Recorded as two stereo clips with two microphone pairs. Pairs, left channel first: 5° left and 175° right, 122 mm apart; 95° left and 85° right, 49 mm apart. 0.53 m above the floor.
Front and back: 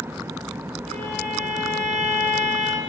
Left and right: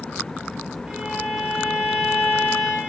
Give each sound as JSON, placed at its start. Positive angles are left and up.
{"t": 0.9, "sound": "a violin", "azimuth_deg": -160, "distance_m": 5.0}